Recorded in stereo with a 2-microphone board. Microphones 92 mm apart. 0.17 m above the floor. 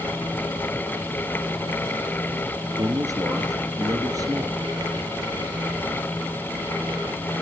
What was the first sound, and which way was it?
A man speaking, 40° right (ahead or behind).